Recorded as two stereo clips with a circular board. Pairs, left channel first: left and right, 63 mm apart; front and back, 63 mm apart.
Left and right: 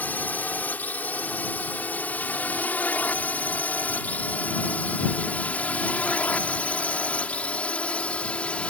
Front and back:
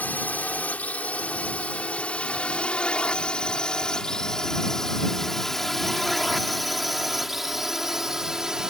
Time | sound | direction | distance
0.0 | a drone | 45° left | ?